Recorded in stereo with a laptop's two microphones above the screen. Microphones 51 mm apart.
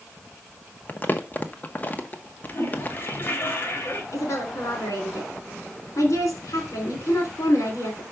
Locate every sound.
0.9 s crumpling: 35° left (ahead or behind), 1.0 m
2.5 s a toilet flushing: 40° left (ahead or behind), 3.5 m
4.1 s a woman speaking: 80° left, 3 m